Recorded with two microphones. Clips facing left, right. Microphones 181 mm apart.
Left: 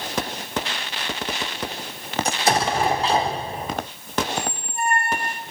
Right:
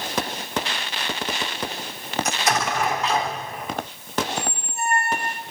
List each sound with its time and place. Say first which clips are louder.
2.2 s an explosion: left 4 dB; 30° left (ahead or behind), 1.2 m
4.3 s a squeak: left 1 dB; 55° left (ahead or behind), 2 m